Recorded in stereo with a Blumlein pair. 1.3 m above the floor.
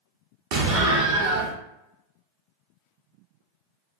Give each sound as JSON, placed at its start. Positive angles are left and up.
{"t": 0.5, "sound": "an explosion", "azimuth_deg": -50, "distance_m": 0.8}